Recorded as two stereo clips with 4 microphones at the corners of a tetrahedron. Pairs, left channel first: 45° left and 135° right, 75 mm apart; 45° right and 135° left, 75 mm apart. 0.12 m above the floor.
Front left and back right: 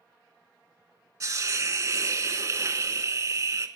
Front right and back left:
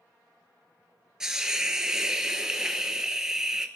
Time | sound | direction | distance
1.2 | a hiss | 145° right | 0.9 m